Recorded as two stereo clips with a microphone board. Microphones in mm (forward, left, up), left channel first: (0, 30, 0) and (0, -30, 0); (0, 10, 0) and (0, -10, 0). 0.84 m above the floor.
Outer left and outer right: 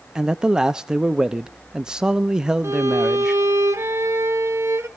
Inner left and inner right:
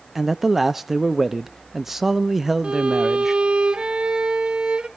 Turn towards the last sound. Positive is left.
turn(degrees=-50)  # may be behind; listen again after turning